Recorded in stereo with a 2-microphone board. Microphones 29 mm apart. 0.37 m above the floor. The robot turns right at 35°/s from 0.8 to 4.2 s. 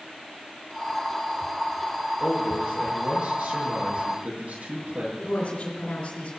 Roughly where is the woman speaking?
Left.